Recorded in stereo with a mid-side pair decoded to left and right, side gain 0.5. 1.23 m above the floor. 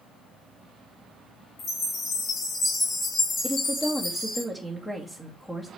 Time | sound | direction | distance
1.6 | a chime | 50° left | 2.5 m
3.4 | a woman speaking | 10° left | 1.9 m